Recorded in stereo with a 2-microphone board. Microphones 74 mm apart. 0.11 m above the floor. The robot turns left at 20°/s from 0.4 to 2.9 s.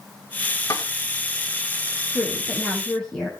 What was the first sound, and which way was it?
A snare drum, 55° left (ahead or behind).